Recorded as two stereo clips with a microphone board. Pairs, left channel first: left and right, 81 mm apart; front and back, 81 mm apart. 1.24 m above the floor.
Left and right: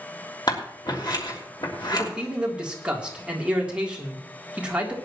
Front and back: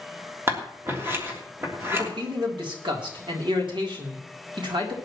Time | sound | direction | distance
0.5 | scissors | 120° left | 3 m
1.9 | a man speaking | 170° right | 3 m